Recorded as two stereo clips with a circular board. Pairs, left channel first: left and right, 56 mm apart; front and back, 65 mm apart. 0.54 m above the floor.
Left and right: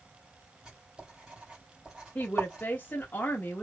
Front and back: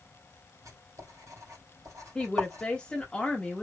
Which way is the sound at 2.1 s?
65° left.